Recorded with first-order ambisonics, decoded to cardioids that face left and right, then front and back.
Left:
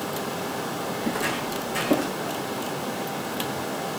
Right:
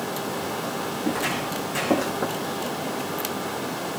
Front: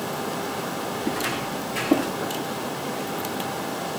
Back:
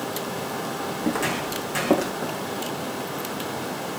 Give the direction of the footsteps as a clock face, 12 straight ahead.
6 o'clock.